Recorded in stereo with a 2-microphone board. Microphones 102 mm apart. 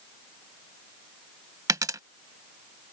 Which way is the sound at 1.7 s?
35° right (ahead or behind).